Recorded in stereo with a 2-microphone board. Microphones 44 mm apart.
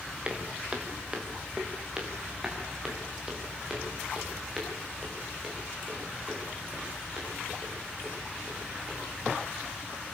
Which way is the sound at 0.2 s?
25° right (ahead or behind).